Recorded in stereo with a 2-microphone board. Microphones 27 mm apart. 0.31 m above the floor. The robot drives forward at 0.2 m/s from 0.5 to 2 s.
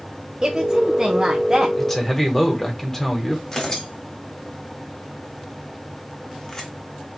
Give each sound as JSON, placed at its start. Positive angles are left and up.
{"t": 0.4, "sound": "a woman speaking", "side_deg": -20, "distance_m": 0.9}
{"t": 1.8, "sound": "a man speaking", "side_deg": 15, "distance_m": 1.2}
{"t": 3.5, "sound": "tearing paper", "side_deg": 25, "distance_m": 1.2}